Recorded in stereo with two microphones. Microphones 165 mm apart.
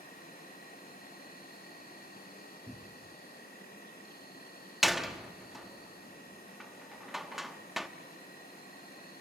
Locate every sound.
0.0 s an insect: 60° left (ahead or behind), 6.5 m
2.7 s a cupboard door: 5° left (ahead or behind), 0.8 m
4.8 s a door slam: centre (ahead or behind), 0.9 m